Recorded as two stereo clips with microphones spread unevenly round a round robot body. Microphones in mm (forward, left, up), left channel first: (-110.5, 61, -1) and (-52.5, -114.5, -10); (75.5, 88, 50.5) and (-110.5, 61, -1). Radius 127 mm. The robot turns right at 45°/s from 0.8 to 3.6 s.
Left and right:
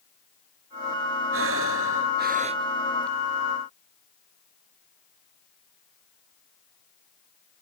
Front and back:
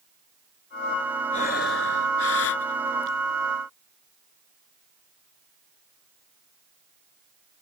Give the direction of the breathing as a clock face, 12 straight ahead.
2 o'clock.